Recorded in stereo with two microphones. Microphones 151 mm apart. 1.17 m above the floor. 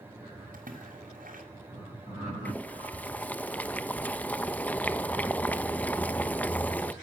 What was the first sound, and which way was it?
A splash, 60° right (ahead or behind).